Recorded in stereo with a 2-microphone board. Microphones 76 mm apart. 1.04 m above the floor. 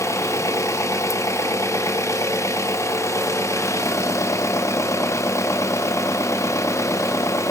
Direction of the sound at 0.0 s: 40° left (ahead or behind).